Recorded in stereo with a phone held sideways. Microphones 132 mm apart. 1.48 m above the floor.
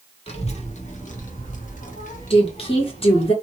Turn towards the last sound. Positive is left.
turn(degrees=45)  # may be behind; listen again after turning